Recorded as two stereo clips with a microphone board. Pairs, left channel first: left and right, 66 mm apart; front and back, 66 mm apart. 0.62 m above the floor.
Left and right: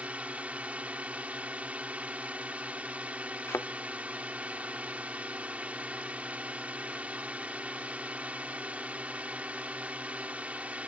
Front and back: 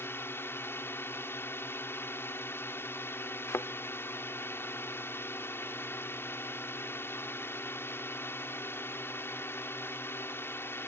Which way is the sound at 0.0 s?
30° right.